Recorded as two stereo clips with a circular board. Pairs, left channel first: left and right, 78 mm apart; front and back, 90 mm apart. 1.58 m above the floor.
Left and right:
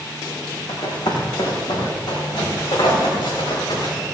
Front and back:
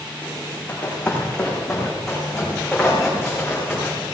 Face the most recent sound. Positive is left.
turn(degrees=95)